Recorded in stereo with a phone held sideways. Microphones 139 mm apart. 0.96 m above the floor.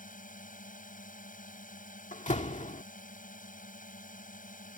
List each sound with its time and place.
0.0 s a drone: 75° left (ahead or behind)
2.1 s a door slam: 65° left (ahead or behind)